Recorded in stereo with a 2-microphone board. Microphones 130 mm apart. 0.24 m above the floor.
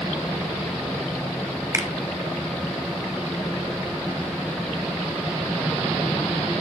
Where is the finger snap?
25° right (ahead or behind), 1.1 m.